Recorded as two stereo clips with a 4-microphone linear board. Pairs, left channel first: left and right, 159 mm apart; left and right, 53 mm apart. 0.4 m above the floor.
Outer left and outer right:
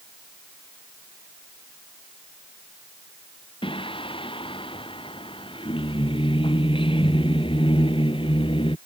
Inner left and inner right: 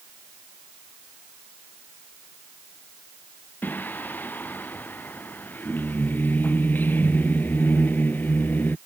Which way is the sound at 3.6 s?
35° left (ahead or behind).